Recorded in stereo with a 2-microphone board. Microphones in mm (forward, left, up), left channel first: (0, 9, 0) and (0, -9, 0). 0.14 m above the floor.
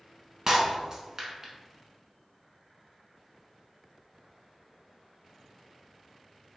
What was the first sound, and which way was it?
Breaking glass, 30° right (ahead or behind).